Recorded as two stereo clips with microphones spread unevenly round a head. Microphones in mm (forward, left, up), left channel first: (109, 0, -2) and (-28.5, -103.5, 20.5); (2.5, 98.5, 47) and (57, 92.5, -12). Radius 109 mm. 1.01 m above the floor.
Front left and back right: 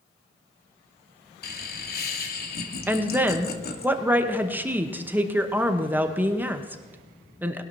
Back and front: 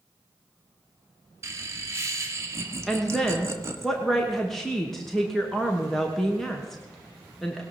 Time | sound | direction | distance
1.4 | laughter | 10° left | 1.8 m
2.9 | a woman speaking | 60° right | 1.0 m